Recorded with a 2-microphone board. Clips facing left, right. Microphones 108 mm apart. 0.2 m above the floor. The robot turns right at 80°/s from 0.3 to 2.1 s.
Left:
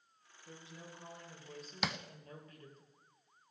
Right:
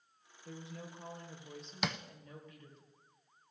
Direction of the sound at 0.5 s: 90° right.